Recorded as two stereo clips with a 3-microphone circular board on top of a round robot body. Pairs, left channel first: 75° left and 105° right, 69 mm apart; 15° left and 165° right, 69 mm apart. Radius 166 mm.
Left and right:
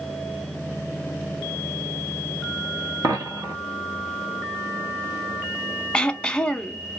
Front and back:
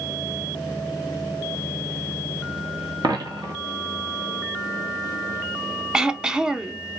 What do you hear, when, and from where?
3.0 s a dropped coin: 145° right, 0.6 m
5.9 s throat clearing: 130° left, 0.7 m